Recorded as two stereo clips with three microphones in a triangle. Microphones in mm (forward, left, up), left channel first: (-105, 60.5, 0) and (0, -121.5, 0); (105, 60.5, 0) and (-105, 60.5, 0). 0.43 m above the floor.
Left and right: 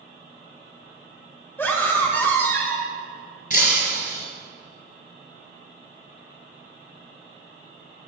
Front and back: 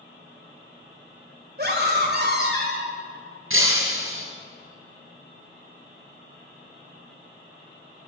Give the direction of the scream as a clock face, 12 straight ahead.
5 o'clock.